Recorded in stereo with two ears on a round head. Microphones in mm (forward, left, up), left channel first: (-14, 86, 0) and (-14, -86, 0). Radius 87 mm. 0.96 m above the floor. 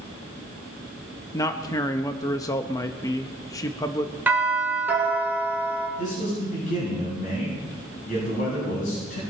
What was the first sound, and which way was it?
A man speaking, 20° left (ahead or behind).